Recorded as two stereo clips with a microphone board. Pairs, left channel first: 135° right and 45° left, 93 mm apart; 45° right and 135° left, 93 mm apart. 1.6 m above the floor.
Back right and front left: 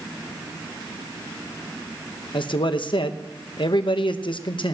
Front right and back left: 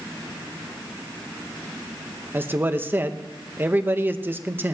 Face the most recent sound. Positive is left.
turn(degrees=-160)